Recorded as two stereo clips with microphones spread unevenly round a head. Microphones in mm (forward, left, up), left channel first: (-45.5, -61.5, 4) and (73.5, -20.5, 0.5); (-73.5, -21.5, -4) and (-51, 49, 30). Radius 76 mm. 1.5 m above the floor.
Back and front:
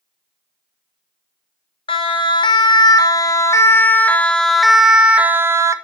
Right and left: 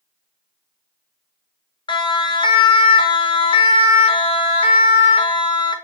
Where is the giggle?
No giggle in this recording.